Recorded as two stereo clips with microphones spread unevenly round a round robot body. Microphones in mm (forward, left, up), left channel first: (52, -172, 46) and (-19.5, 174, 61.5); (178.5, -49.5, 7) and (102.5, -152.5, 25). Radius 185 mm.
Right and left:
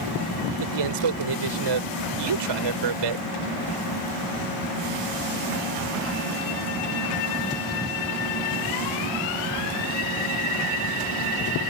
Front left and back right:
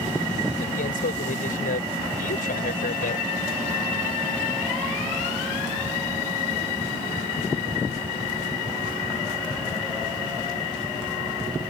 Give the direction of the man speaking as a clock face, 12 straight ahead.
9 o'clock.